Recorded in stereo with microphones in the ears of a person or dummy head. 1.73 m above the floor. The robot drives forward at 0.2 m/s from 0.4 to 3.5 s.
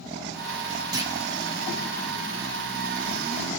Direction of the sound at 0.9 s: 20° right (ahead or behind).